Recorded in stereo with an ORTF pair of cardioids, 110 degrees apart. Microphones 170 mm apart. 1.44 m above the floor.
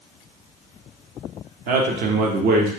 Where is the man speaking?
65° right, 0.7 m.